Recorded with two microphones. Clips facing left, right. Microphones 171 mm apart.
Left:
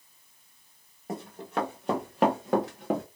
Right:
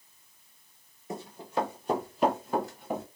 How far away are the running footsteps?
About 2.0 m.